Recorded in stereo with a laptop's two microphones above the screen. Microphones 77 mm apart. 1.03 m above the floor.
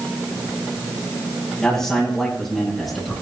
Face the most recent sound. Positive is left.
turn(degrees=0)  # may be behind; listen again after turning